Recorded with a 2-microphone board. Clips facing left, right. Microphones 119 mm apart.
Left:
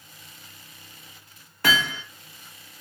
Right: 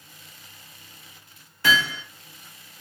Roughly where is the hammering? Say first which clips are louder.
Right 1 dB; left.